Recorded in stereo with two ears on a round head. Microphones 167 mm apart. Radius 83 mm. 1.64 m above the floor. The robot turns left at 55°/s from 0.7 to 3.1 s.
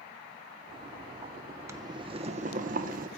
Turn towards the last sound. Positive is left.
turn(degrees=-100)